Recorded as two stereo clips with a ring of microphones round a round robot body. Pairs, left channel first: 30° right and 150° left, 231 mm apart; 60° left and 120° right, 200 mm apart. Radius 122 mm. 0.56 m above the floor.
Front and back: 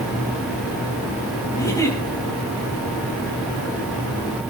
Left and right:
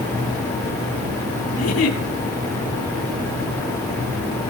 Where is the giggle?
45° left, 9 m.